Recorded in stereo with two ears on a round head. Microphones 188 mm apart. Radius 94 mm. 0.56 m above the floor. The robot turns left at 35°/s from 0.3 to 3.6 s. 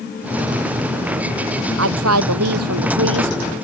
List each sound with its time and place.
1.8 s a woman speaking: 65° right; by 3.5 s 125° right